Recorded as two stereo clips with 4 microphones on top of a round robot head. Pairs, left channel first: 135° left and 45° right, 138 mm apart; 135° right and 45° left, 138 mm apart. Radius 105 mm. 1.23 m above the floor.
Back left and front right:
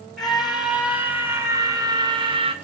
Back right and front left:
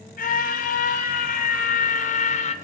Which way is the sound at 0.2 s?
135° right.